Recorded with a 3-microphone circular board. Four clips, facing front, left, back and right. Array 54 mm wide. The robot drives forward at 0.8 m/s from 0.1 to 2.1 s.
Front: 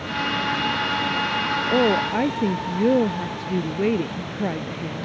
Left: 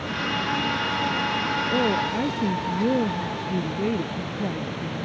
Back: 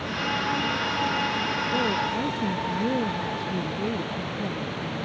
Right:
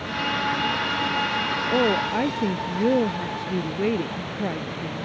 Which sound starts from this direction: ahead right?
A woman speaking, at 1.7 s.